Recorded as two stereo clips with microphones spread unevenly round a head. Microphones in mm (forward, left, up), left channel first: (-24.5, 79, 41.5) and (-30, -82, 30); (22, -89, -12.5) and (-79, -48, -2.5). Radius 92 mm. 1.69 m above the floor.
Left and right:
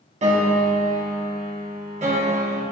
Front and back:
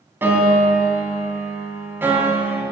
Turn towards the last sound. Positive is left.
turn(degrees=-135)